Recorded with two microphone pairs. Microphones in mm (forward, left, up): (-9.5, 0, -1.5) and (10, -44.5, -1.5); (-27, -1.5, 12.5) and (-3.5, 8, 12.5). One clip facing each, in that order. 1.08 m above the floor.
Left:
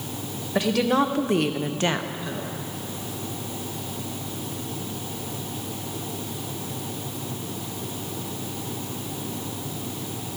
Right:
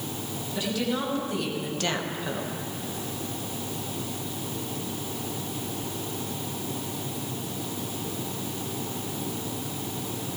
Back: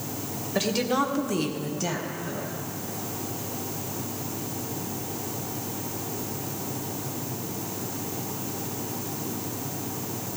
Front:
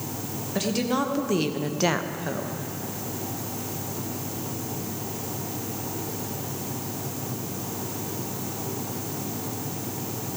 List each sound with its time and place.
0.6 s a woman speaking: 120° left, 1.5 m; by 2.6 s 5° right, 1.0 m